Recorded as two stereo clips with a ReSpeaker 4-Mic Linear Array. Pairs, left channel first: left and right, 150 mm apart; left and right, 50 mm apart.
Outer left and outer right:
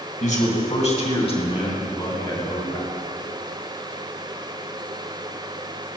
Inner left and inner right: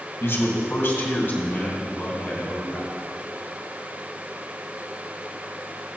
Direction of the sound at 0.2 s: 55° left (ahead or behind).